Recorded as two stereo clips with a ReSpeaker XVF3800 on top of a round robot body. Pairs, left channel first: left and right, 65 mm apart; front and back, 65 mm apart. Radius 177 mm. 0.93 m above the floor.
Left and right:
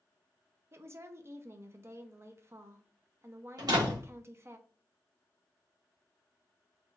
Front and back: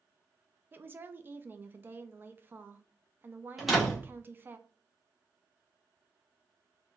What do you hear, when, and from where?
0.7 s a woman speaking: 125° right, 0.6 m
3.6 s a door slam: 90° right, 1.1 m